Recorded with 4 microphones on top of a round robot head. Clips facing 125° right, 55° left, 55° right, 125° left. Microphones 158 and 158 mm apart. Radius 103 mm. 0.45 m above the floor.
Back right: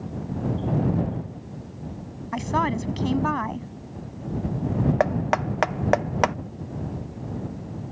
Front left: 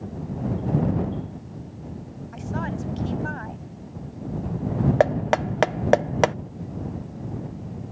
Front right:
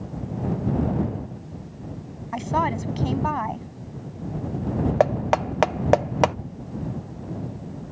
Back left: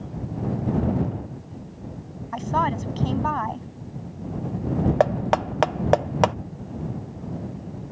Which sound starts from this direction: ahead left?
Knocking, at 5.0 s.